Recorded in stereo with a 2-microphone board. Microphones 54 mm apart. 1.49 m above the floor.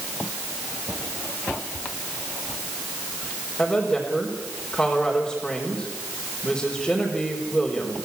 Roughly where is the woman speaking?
Centre.